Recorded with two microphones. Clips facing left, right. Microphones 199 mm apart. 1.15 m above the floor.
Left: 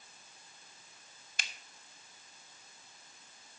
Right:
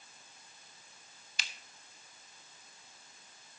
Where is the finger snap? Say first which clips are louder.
Left 1 dB; 50° left (ahead or behind), 1.0 m.